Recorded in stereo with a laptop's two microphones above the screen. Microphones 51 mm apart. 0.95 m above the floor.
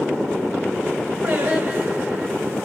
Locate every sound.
1.2 s singing: 50° right (ahead or behind), 1.4 m